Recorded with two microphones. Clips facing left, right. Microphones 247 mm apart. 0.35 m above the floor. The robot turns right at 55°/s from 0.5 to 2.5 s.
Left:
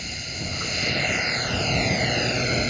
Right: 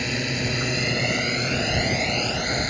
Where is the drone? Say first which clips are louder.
Right 10 dB; 80° right; by 2.7 s 30° left.